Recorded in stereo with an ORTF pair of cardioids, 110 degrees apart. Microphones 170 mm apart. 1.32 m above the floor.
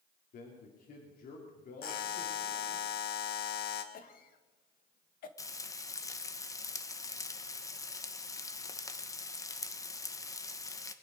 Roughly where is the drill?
I don't hear a drill.